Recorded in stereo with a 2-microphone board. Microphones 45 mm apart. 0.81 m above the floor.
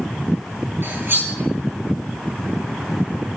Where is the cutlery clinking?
55° right (ahead or behind), 9 m.